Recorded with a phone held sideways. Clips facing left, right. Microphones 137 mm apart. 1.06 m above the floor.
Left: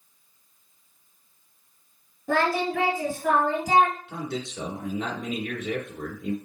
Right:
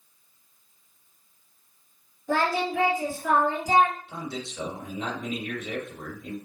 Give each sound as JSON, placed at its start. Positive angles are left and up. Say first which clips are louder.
{"t": 2.3, "sound": "singing", "louder": "left 1 dB", "side_deg": 60, "distance_m": 2.0}
{"t": 4.1, "sound": "a man speaking", "louder": "left 3 dB", "side_deg": 65, "distance_m": 3.0}